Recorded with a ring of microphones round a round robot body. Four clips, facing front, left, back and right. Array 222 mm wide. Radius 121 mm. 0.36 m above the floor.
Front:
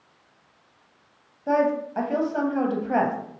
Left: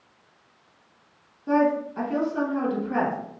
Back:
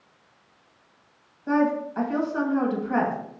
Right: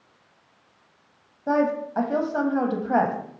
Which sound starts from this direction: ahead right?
A woman speaking, at 1.5 s.